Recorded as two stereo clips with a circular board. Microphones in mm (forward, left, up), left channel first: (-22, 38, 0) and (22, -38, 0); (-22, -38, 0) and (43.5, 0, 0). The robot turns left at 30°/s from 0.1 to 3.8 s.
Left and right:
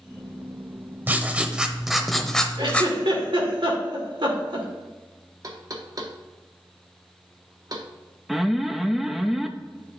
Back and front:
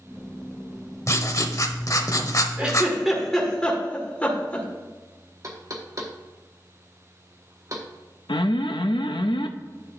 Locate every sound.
1.1 s writing: 120° right, 0.7 m; by 2.9 s 175° right, 0.7 m
2.6 s a giggle: 40° right, 1.7 m; by 4.7 s 80° right, 1.7 m
5.4 s knocking: 15° right, 1.0 m
8.3 s an alarm: 145° right, 0.5 m